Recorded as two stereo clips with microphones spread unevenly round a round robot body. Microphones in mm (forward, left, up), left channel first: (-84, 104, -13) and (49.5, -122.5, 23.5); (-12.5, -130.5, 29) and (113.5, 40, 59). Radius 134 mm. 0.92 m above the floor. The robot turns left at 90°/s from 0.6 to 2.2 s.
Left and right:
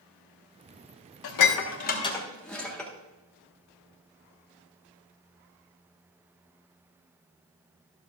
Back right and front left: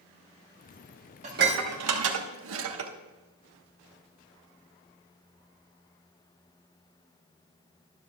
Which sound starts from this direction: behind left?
Dishes clattering, at 1.2 s.